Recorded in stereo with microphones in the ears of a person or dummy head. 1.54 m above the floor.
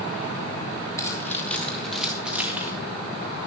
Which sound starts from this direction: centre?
Keys jangling, at 1.0 s.